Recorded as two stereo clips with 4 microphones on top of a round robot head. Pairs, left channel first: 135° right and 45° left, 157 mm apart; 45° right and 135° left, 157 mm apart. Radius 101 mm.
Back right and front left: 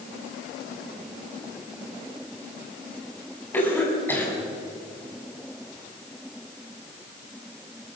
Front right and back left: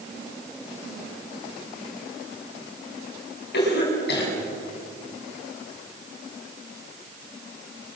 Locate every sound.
3.5 s a cough: 60° right, 8 m